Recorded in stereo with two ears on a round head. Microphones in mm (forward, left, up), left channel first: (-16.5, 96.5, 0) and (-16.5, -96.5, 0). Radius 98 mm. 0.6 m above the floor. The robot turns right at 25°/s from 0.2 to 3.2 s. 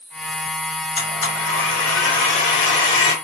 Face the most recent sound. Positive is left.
turn(degrees=115)